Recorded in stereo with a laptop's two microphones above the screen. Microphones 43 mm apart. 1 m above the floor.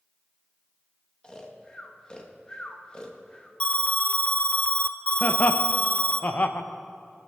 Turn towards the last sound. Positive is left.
turn(degrees=45)  # may be behind; listen again after turning